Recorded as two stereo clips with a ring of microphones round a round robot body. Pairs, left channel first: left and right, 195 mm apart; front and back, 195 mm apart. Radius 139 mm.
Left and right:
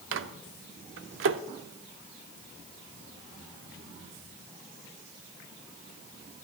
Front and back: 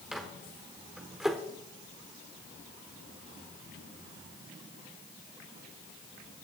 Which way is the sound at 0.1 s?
90° right.